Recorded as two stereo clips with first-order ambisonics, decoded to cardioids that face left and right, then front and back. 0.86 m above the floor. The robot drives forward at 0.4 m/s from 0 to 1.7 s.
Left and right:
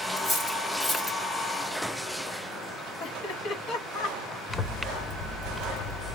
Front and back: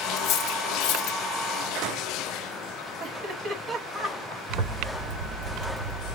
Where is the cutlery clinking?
15° left, 1.5 m; by 1.2 s 20° left, 1.2 m.